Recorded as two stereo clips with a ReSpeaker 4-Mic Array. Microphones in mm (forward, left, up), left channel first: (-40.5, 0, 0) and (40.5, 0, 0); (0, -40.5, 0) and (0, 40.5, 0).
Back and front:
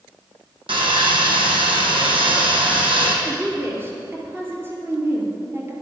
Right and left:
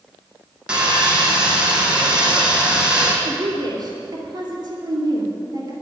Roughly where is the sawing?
Ahead.